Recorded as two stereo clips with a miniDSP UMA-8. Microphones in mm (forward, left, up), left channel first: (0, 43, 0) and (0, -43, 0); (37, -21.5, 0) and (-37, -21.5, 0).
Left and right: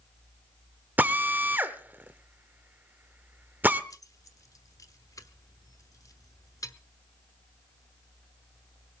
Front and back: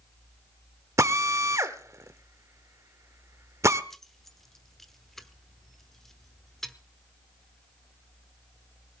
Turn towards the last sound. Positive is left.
turn(degrees=80)